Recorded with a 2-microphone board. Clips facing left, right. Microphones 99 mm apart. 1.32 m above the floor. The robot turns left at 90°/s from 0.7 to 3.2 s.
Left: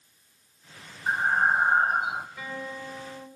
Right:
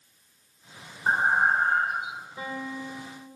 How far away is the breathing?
About 0.9 m.